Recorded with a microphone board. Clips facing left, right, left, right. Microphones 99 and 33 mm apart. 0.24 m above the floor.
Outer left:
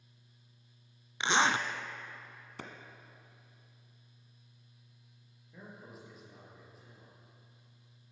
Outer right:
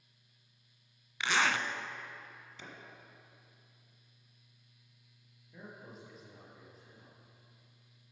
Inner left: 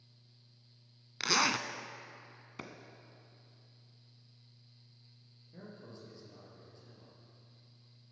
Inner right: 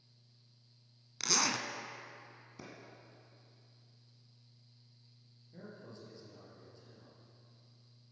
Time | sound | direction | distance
1.2 | a zipper | 25° left (ahead or behind) | 0.6 m
2.6 | a clap | 60° left (ahead or behind) | 1.5 m
5.5 | a man speaking | centre (ahead or behind) | 4.5 m